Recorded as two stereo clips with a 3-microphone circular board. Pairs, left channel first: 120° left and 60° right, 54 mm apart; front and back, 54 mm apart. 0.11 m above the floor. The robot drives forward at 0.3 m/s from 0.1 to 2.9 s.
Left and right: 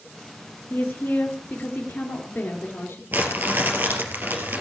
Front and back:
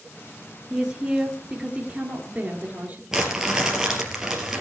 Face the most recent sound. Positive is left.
turn(degrees=-100)